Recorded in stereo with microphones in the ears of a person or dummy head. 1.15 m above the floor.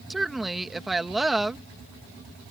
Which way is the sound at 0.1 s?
Centre (ahead or behind).